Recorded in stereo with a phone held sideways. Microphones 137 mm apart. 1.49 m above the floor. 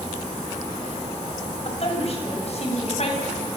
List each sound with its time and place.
1.6 s a woman speaking: 50° left (ahead or behind), 7.5 m